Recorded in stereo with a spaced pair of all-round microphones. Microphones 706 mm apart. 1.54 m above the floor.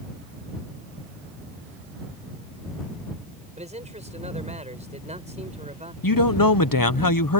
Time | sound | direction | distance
3.6 | a man speaking | 10° right (ahead or behind) | ?
6.0 | a man speaking | 30° left (ahead or behind) | ?